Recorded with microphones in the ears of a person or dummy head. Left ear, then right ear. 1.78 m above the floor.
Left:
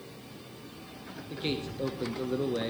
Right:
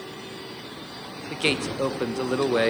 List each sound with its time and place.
1.3 s a man speaking: 40° right (ahead or behind), 0.6 m